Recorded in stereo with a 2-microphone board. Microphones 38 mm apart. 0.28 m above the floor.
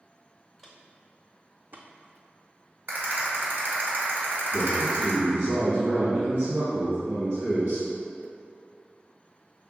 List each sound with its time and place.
0.6 s footsteps: 5° left (ahead or behind), 0.9 m; by 2.8 s 75° right (ahead or behind), 1.0 m
2.9 s a rattle: 60° right (ahead or behind), 1.6 m
4.5 s a man speaking: 60° right (ahead or behind), 1.9 m